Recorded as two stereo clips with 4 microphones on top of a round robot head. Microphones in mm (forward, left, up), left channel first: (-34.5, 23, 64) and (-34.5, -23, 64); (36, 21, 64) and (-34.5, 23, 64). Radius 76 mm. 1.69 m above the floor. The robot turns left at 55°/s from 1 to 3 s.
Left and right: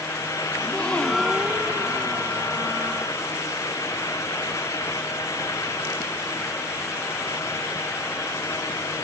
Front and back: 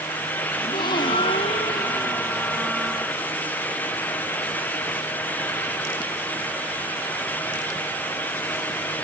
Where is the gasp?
10° left; by 2.7 s 85° right.